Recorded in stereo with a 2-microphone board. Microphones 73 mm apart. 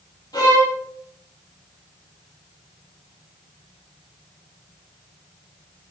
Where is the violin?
70° left (ahead or behind), 4.5 m.